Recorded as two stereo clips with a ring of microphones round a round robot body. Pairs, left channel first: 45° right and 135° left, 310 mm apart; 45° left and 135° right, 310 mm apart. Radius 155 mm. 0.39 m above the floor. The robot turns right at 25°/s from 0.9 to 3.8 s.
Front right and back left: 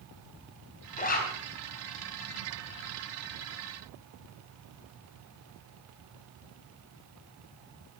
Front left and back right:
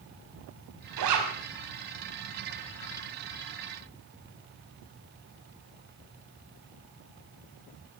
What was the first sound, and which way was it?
A zipper, 110° right.